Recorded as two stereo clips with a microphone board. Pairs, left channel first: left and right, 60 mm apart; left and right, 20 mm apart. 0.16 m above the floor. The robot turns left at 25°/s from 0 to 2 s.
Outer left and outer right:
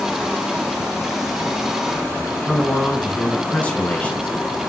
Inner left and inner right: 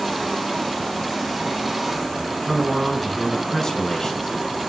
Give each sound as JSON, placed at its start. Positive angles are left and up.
{"t": 2.3, "sound": "a man speaking", "side_deg": 20, "distance_m": 1.2}